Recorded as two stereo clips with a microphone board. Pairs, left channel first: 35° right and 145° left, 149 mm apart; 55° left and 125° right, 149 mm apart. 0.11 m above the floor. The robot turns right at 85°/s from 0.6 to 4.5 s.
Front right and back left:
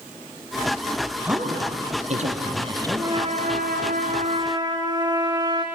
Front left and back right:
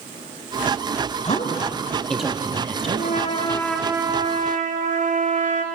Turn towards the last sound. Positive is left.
turn(degrees=-155)